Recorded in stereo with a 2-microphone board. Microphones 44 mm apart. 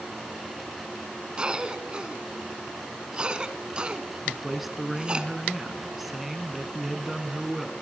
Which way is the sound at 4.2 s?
5° right (ahead or behind).